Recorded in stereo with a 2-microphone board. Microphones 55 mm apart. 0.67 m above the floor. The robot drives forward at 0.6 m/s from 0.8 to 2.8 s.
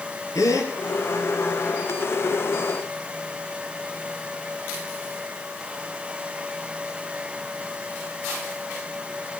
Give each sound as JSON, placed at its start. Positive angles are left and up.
{"t": 0.3, "sound": "a gasp", "side_deg": 85, "distance_m": 5.0}